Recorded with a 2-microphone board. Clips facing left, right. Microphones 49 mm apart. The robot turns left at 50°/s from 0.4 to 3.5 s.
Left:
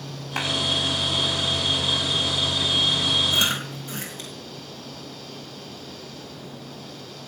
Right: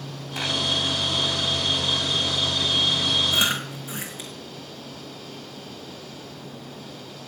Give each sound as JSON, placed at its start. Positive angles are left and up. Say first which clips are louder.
{"t": 0.4, "sound": "a clap", "louder": "left 2 dB", "side_deg": 60, "distance_m": 6.0}
{"t": 3.3, "sound": "chewing", "louder": "even", "side_deg": -20, "distance_m": 3.5}